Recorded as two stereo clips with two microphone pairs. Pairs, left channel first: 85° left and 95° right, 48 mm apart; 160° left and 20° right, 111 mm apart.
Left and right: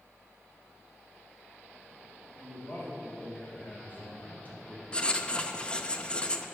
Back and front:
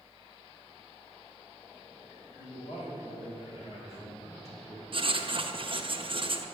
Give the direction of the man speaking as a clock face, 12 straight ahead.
7 o'clock.